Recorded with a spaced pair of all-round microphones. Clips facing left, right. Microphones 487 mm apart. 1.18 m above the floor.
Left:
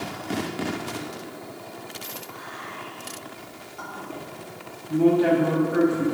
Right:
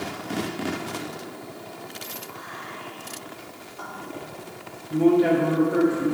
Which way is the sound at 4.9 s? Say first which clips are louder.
Even; 45° left (ahead or behind).